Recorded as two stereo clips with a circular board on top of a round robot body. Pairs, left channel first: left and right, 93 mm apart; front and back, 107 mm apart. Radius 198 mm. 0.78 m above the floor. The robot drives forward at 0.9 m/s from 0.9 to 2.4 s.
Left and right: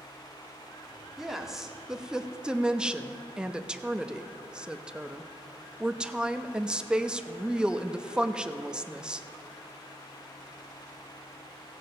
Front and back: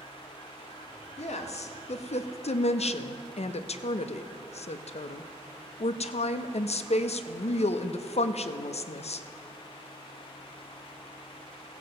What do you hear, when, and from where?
1.2 s a woman speaking: 5° right, 2.0 m; by 9.3 s 10° right, 0.9 m